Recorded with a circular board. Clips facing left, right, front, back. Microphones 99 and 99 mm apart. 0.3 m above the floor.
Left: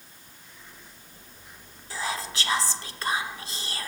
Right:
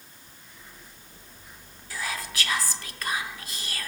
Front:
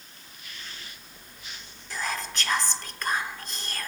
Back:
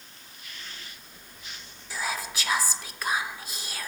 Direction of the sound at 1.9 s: 105° left.